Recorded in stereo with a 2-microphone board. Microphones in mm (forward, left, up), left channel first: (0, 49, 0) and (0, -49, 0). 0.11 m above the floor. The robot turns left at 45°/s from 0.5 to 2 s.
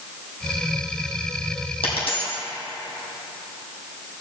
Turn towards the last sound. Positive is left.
turn(degrees=75)  # may be behind; listen again after turning